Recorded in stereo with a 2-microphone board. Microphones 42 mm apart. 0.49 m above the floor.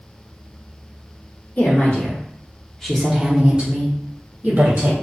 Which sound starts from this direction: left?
A woman speaking, at 1.6 s.